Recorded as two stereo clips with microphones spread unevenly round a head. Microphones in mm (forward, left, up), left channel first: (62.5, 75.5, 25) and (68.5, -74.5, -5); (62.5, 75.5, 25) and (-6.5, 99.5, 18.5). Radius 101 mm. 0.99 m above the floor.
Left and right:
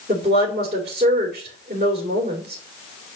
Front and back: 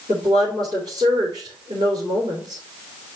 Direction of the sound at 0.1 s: 155° right.